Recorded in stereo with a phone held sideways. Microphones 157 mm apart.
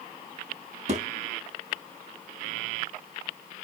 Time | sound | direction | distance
0.9 | a thud | 45° right (ahead or behind) | 3 m